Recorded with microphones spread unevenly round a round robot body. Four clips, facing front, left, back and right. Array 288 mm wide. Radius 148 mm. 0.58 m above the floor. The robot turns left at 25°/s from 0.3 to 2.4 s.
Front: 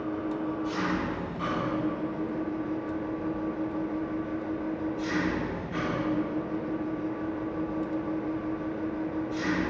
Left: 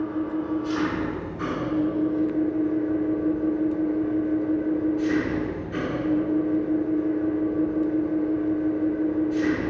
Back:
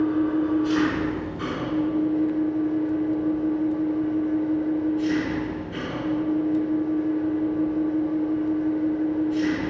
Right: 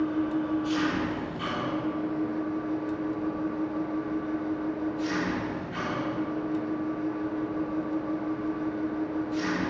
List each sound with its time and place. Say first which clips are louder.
0.0 s an engine running: even, back 9 dB; 165° left, 4 m; by 9.7 s 115° left, 4 m